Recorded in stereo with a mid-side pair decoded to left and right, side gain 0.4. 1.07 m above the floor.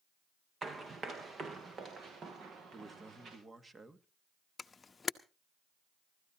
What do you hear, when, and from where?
0.6 s running footsteps: 40° right, 3.5 m; by 3.4 s 65° right, 4.5 m
2.7 s a man speaking: 30° right, 1.9 m
4.6 s a camera shutter: 35° left, 0.8 m